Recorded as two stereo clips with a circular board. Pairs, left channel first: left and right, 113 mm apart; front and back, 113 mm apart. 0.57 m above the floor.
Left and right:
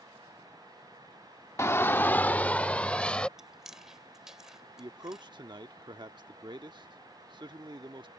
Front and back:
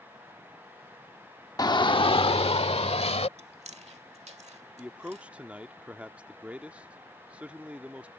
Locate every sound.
1.6 s a shout: 35° left; by 3.3 s 10° left
3.4 s chewing: 175° right
4.8 s a man speaking: 110° right